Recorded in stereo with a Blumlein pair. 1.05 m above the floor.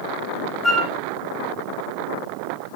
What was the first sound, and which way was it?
A flute, 15° left.